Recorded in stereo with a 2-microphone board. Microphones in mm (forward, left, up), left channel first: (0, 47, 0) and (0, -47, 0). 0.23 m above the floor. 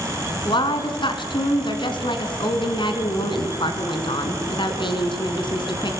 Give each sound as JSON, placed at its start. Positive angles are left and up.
{"t": 0.5, "sound": "a woman speaking", "side_deg": 60, "distance_m": 3.0}